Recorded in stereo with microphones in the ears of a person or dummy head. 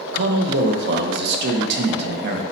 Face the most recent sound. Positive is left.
turn(degrees=-65)  # may be behind; listen again after turning